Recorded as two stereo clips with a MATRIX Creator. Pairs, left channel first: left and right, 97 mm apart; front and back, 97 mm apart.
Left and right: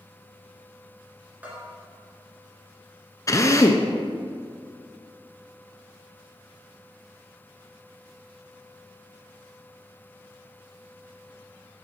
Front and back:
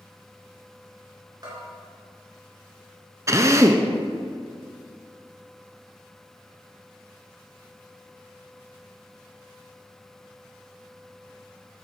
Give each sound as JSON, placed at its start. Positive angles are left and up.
{"t": 1.4, "sound": "a bell", "azimuth_deg": -160, "distance_m": 2.5}
{"t": 3.3, "sound": "a drill", "azimuth_deg": 130, "distance_m": 0.7}